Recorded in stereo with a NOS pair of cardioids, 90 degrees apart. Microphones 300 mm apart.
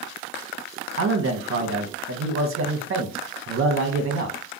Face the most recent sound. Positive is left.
turn(degrees=-45)